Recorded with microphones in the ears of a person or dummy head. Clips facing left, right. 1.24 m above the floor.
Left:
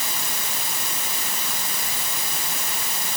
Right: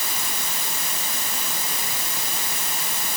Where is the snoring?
No snoring in this recording.